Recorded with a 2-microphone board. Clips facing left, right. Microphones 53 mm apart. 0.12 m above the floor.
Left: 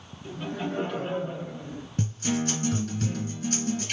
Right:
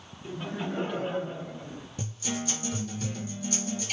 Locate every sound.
0.2 s laughter: 20° right (ahead or behind), 1.3 m; by 1.9 s 15° left (ahead or behind), 1.4 m
2.0 s a guitar: 50° left (ahead or behind), 2.0 m